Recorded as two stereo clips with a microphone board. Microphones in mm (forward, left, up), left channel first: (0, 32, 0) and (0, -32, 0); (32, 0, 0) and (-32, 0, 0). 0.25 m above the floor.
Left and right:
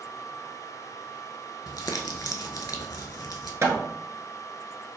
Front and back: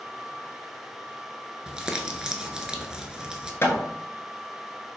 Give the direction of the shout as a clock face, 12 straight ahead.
I don't hear a shout.